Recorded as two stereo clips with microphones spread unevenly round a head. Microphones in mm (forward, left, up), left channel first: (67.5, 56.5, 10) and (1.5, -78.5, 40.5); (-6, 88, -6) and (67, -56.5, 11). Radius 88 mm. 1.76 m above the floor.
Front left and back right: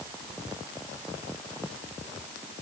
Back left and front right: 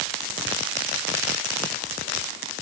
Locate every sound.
Only background noise.